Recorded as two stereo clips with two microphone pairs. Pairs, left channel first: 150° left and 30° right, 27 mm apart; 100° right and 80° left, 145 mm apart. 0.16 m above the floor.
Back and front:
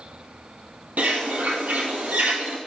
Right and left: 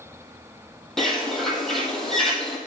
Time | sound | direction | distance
1.0 | a bird | 15° right | 1.3 m